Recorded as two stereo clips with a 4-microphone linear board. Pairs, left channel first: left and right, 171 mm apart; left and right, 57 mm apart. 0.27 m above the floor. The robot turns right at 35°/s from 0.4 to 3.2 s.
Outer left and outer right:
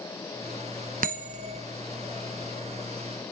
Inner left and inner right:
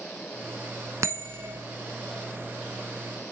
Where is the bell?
55° right (ahead or behind), 0.8 m; by 1.6 s 35° right (ahead or behind), 0.8 m.